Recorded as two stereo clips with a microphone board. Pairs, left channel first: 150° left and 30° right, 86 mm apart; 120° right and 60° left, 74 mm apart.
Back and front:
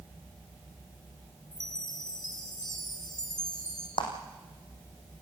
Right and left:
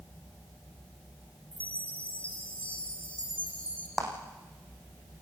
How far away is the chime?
About 3 m.